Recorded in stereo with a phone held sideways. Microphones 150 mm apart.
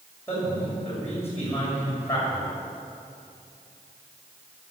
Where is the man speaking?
15° left (ahead or behind), 7 m.